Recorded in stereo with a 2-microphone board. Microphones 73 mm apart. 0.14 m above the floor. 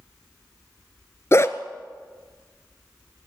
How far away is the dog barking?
About 0.9 m.